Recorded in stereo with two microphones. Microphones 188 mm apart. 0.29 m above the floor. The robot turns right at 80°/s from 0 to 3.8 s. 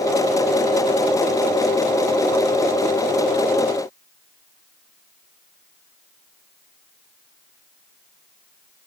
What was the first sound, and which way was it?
Only background noise.